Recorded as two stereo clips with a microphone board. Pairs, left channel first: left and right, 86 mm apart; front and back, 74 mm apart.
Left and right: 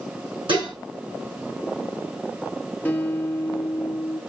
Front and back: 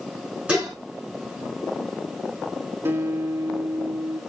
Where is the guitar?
150° left, 1.1 m.